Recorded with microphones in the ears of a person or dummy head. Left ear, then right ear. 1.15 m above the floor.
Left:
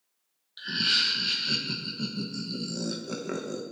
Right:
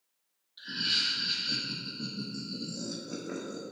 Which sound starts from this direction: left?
Laughter, at 0.6 s.